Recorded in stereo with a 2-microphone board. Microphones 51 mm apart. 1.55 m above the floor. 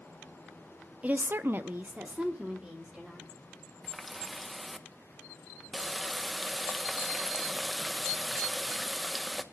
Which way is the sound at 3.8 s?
Centre (ahead or behind).